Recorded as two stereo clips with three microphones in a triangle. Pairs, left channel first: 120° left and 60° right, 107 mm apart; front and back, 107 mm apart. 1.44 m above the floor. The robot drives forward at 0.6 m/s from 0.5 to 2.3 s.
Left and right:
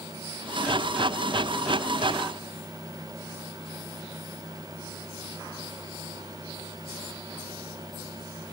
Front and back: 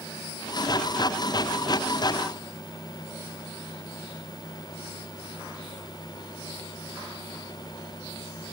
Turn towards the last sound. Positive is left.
No sound to turn to.